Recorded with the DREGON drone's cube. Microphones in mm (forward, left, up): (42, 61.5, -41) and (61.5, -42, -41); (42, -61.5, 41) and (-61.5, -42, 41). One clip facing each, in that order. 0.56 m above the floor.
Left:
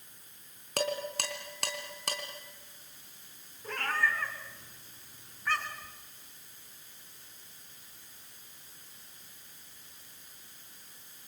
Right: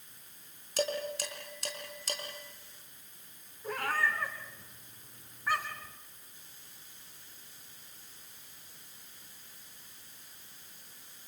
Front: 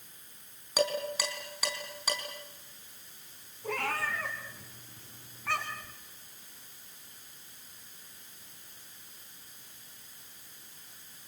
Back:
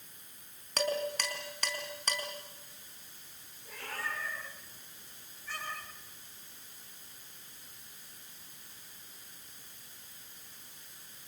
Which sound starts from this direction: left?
Dishes clattering, at 0.8 s.